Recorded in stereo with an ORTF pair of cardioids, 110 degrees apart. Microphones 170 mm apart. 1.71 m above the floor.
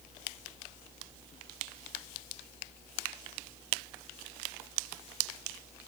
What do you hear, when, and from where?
Only background noise.